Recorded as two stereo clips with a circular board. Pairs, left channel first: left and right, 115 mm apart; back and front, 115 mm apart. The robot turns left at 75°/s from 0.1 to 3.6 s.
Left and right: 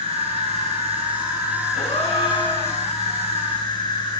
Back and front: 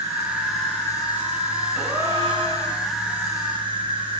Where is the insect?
55° right, 2.5 m; by 4.2 s 40° left, 2.5 m.